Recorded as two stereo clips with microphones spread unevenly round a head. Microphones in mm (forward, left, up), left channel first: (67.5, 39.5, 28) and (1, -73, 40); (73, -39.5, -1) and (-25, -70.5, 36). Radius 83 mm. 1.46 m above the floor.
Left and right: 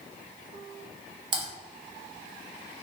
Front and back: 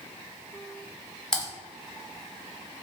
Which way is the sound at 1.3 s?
75° right.